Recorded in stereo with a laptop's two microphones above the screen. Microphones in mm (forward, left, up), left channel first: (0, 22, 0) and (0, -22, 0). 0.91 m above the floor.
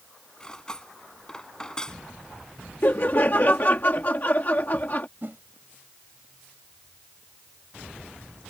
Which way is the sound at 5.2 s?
50° right (ahead or behind).